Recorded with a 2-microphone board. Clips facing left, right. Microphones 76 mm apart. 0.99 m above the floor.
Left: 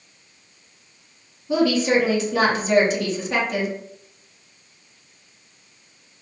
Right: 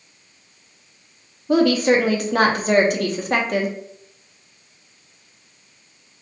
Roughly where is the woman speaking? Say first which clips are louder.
Right 3 dB; right.